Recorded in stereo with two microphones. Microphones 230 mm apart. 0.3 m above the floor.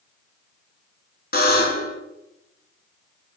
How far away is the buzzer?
About 0.8 m.